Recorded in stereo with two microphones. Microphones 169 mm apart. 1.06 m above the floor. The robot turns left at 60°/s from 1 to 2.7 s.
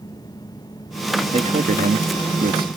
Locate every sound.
1.3 s a man speaking: 40° right; by 2.7 s 120° right